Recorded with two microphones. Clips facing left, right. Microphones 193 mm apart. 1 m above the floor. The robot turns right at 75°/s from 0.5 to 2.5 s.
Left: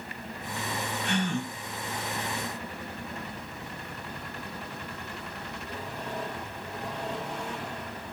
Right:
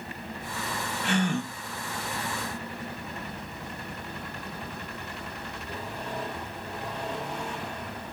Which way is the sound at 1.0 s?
95° right.